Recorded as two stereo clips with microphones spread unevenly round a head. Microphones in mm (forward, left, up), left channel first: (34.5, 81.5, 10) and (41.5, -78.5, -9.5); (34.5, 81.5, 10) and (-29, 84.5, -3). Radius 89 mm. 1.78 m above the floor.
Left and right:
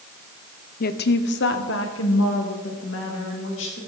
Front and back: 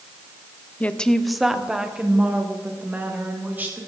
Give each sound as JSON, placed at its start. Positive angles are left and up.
{"t": 0.8, "sound": "a woman speaking", "azimuth_deg": 65, "distance_m": 0.9}